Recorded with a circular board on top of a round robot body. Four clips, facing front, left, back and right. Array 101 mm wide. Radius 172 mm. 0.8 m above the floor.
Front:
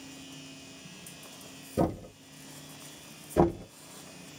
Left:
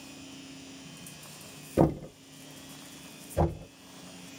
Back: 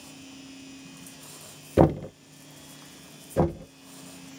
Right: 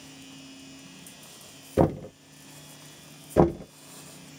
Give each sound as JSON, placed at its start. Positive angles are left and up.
{"t": 1.8, "sound": "knocking", "azimuth_deg": -160, "distance_m": 0.6}
{"t": 3.4, "sound": "knocking", "azimuth_deg": -90, "distance_m": 0.7}